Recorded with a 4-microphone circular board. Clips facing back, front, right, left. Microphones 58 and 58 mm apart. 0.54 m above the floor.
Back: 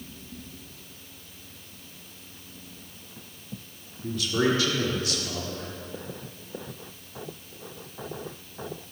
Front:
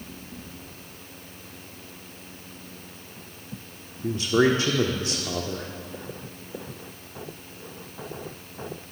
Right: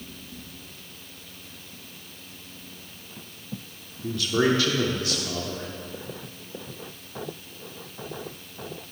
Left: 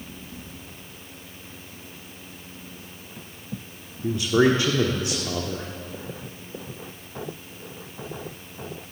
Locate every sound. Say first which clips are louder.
4.0 s a man speaking: front 4 dB, left 4 dB; 35° left, 1.0 m